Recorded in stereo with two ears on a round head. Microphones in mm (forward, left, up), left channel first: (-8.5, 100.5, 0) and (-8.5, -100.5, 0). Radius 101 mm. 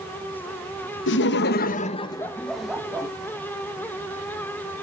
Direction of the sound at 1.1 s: 55° left (ahead or behind).